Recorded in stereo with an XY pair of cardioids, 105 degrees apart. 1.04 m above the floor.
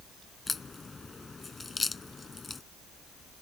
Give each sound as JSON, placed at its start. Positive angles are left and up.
{"t": 0.5, "sound": "a crack", "azimuth_deg": 25}